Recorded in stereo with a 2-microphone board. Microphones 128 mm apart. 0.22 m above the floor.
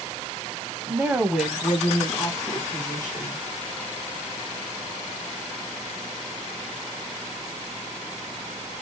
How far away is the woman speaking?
About 1.0 m.